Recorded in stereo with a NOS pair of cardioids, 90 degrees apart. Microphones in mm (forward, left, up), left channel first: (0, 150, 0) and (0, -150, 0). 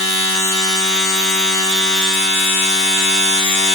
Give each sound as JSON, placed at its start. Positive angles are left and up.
{"t": 0.0, "sound": "a machine running", "azimuth_deg": 70, "distance_m": 5.0}